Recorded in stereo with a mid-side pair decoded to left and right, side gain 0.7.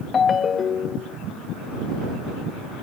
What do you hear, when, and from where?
0.1 s a ringtone: 30° left